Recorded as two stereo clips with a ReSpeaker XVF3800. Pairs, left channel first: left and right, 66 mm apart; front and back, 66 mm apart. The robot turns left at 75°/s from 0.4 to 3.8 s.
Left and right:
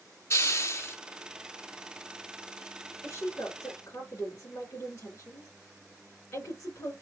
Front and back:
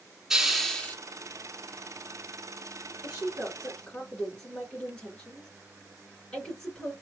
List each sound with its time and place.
0.3 s a hiss: 100° left, 1.0 m; by 1.0 s 55° left, 1.0 m
3.0 s a woman speaking: 130° left, 2.5 m; by 6.9 s 75° left, 2.5 m